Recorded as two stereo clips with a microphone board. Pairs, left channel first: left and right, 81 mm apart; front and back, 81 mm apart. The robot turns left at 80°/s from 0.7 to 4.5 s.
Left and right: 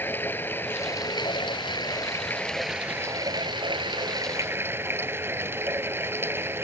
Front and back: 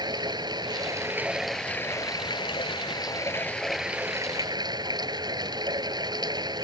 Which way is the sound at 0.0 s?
155° left.